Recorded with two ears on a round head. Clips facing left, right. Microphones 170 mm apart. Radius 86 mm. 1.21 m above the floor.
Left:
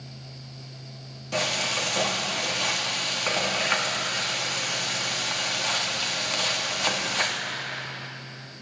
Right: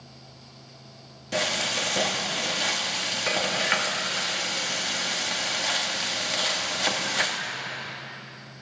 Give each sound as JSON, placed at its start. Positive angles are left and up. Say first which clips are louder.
{"t": 1.3, "sound": "frying", "louder": "even", "side_deg": -10, "distance_m": 2.5}